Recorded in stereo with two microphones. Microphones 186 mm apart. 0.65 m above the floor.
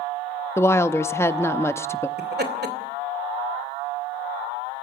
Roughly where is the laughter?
Right.